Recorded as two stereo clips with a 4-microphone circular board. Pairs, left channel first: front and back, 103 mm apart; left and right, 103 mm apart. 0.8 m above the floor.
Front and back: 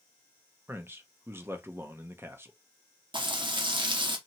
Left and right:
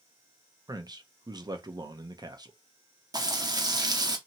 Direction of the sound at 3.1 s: 140° right.